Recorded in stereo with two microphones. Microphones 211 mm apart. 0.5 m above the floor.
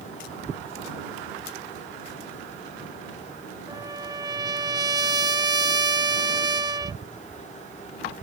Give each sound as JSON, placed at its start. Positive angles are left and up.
{"t": 3.7, "sound": "a trumpet", "side_deg": -20}